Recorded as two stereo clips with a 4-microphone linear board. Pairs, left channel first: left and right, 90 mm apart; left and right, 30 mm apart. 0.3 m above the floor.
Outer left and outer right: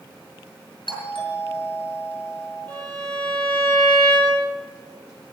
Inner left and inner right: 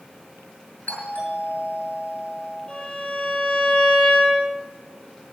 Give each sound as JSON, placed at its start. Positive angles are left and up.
{"t": 0.9, "sound": "a doorbell", "side_deg": 60, "distance_m": 7.0}
{"t": 2.7, "sound": "a violin", "side_deg": 20, "distance_m": 7.0}